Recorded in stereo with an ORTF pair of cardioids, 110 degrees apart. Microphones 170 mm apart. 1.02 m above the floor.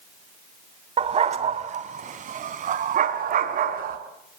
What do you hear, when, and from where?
1.0 s a dog barking: 40° right, 2.5 m; by 4.0 s 60° right, 4.5 m